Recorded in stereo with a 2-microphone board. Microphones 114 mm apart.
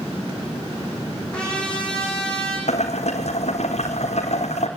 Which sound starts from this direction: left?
Boiling, at 2.7 s.